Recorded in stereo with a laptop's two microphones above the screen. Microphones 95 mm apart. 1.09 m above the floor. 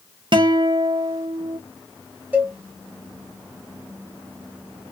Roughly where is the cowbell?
Centre.